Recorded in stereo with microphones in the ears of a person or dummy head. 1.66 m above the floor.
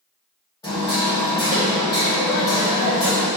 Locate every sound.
0.6 s hammering: 25° left (ahead or behind), 1.8 m